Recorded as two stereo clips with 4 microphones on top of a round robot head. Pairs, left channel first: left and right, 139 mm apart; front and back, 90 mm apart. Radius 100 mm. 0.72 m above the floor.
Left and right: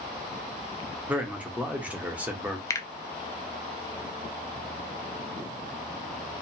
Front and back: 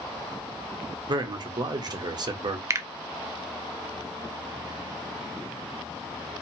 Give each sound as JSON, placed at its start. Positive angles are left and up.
{"t": 1.1, "sound": "a man speaking", "azimuth_deg": -165, "distance_m": 0.7}
{"t": 2.7, "sound": "a finger snap", "azimuth_deg": 150, "distance_m": 0.5}